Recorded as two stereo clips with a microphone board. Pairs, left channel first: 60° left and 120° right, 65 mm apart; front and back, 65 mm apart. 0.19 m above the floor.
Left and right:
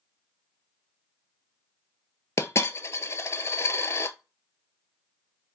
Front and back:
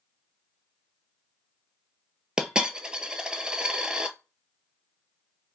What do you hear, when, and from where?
2.4 s a dropped coin: 105° left, 0.5 m